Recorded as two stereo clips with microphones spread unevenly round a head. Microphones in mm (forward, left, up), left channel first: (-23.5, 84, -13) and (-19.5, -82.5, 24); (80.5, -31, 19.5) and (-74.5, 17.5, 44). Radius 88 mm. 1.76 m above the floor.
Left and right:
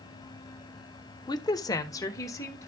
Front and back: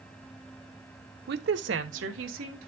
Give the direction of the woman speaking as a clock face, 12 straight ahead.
7 o'clock.